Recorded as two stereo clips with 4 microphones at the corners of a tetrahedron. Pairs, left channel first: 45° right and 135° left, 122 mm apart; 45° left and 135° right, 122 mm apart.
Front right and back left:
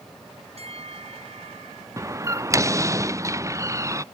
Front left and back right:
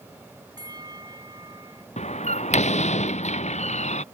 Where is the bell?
170° left.